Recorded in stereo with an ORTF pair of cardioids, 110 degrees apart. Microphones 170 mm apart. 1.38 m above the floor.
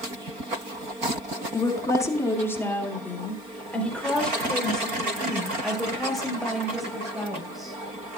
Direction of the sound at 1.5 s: 25° left.